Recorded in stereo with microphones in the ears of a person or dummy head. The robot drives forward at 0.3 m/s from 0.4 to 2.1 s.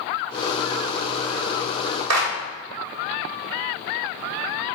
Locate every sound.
2.1 s a clap: 80° right, 0.9 m